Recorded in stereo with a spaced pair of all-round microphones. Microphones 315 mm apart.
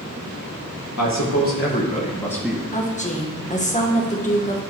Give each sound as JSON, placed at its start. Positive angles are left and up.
{"t": 1.0, "sound": "a man speaking", "side_deg": 60, "distance_m": 1.7}
{"t": 2.7, "sound": "a woman speaking", "side_deg": 20, "distance_m": 1.2}